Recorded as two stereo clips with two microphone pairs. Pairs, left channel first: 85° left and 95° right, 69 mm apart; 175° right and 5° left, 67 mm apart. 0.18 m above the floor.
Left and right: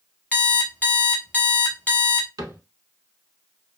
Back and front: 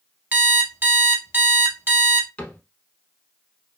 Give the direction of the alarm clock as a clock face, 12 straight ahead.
11 o'clock.